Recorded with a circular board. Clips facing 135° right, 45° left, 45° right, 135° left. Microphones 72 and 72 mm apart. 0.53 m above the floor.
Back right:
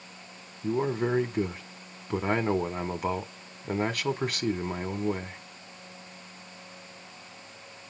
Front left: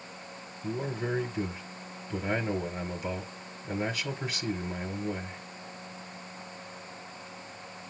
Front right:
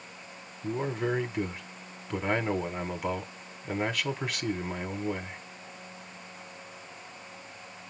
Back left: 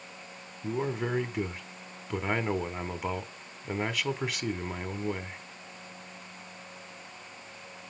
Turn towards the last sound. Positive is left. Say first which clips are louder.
# back right 6 dB, front right 1 dB
turn(degrees=-140)